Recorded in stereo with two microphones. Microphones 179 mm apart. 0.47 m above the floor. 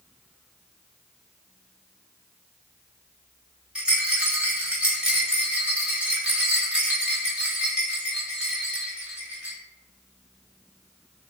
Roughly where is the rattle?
Centre.